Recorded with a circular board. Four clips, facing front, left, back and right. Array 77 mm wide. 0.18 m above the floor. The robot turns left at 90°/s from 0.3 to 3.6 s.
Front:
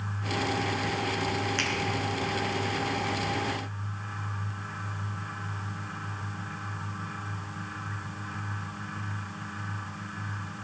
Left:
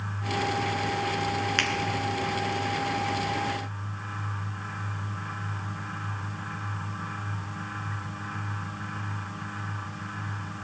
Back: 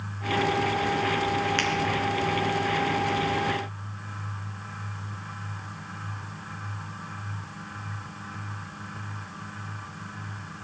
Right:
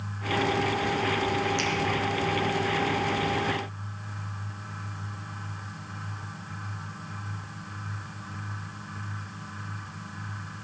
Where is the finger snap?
110° left, 2.0 m; by 1.7 s 100° left, 2.0 m.